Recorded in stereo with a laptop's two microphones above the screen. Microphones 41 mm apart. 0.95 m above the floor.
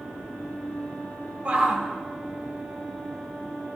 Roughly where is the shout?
Right.